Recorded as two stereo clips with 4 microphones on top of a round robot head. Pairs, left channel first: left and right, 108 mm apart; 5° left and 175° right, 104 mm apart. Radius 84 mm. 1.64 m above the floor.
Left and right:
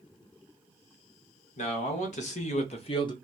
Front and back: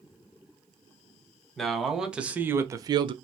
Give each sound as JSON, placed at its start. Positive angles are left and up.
{"t": 1.6, "sound": "a man speaking", "azimuth_deg": 95, "distance_m": 1.0}